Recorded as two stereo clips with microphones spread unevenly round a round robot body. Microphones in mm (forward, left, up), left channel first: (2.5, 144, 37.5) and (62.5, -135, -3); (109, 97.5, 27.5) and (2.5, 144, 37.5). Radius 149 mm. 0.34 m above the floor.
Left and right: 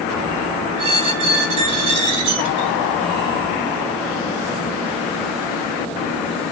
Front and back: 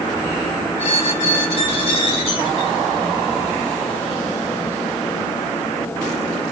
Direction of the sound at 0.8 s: 60° right.